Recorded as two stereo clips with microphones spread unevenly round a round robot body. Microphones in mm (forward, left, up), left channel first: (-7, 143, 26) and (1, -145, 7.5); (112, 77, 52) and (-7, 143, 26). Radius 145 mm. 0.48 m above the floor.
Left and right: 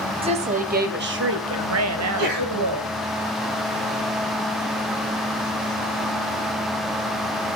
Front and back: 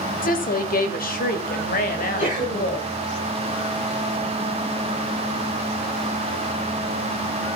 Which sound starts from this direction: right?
A sneeze, at 2.0 s.